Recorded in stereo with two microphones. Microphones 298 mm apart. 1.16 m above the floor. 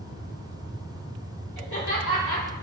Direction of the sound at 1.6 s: 75° left (ahead or behind).